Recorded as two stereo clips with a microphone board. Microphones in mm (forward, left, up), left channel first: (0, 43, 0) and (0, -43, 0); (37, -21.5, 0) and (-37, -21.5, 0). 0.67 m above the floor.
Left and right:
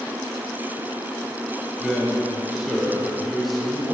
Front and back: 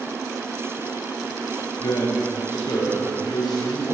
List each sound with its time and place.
1.8 s a man speaking: straight ahead, 2.5 m